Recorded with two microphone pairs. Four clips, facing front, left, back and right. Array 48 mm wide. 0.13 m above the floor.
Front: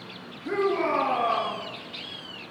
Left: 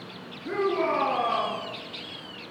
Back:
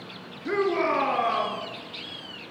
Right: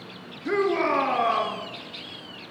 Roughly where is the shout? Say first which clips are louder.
Right 3 dB, back 1 dB; behind right.